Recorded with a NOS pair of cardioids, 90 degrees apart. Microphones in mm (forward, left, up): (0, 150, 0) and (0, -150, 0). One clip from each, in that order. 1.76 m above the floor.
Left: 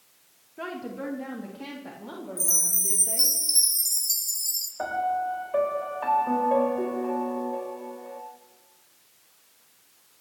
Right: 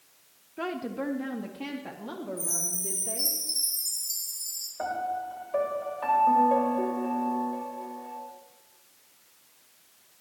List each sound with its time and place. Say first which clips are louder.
0.6 s a woman speaking: right 2 dB; 25° right, 1.9 m; by 3.4 s 20° right, 5 m
2.4 s a chime: left 8 dB; 55° left, 3.5 m
4.8 s a piano: left 4 dB; 15° left, 5 m